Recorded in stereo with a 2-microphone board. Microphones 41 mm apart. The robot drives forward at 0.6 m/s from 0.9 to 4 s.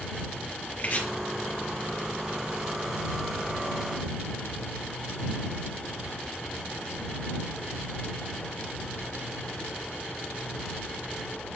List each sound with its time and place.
0.8 s chopping: 50° left (ahead or behind), 2.5 m